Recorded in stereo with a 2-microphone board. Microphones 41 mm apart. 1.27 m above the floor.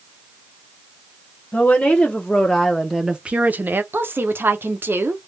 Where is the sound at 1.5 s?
30° left (ahead or behind), 1.0 m; by 3.8 s 55° right (ahead or behind), 0.5 m.